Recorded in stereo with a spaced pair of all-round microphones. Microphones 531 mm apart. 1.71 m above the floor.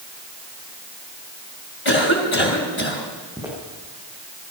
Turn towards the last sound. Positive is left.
turn(degrees=-5)  # may be behind; listen again after turning